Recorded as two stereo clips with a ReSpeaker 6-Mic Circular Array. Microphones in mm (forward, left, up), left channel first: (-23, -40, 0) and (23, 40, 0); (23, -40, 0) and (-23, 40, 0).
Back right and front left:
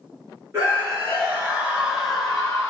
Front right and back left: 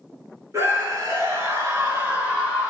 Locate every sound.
0.5 s a scream: 100° left, 2.0 m; by 2.7 s 165° left, 1.7 m